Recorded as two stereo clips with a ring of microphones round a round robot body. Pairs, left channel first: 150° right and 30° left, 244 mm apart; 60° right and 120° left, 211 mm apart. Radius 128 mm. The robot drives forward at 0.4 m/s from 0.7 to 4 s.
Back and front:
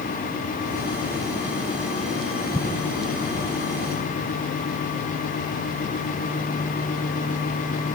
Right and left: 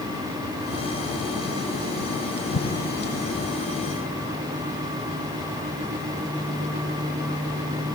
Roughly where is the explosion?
Ahead right.